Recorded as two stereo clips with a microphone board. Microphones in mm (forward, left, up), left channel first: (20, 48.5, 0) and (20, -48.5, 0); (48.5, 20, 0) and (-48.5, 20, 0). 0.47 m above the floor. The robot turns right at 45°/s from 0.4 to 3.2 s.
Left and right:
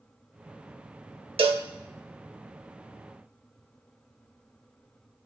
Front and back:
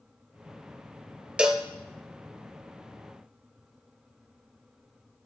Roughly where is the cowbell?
Right.